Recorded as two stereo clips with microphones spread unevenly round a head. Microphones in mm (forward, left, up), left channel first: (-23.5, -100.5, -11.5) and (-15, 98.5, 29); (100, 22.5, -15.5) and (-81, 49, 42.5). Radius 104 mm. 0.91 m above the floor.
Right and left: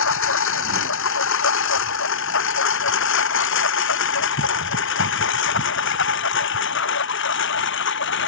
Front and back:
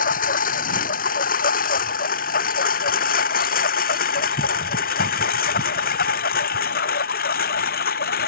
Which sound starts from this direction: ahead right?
A lawn mower, at 0.0 s.